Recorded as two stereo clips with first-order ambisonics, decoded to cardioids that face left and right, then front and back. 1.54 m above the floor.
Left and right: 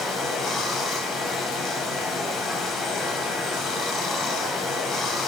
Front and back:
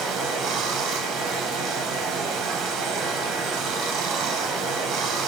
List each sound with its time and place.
0.0 s running water: 145° left, 0.9 m